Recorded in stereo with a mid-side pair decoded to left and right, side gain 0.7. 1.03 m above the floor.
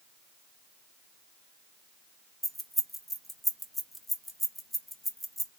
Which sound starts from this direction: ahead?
Keys jangling, at 2.4 s.